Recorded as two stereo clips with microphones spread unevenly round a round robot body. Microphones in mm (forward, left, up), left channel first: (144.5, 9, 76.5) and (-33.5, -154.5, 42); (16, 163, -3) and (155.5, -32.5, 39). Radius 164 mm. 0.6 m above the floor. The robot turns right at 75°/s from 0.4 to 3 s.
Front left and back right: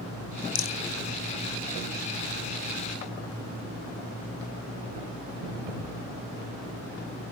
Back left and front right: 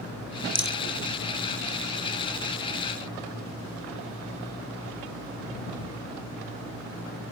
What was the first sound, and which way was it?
A rattle, 25° left.